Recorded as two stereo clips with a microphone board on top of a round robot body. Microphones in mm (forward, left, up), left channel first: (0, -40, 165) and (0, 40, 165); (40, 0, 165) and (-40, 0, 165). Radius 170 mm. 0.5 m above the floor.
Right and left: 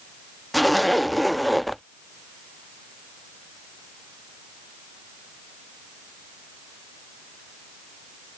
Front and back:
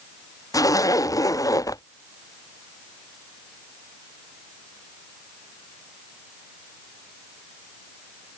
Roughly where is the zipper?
Ahead.